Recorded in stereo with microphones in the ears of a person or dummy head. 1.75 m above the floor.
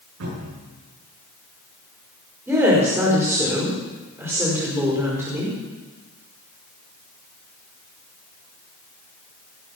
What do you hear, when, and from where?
0.2 s a cupboard door: 70° right (ahead or behind), 9 m
2.5 s a woman speaking: 15° right (ahead or behind), 5 m